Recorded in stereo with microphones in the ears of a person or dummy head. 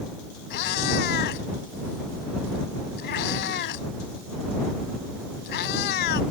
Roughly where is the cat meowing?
Left.